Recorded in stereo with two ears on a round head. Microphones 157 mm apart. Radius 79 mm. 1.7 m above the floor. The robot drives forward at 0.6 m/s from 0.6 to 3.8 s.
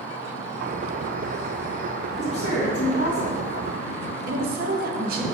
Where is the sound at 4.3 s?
50° right (ahead or behind), 0.8 m.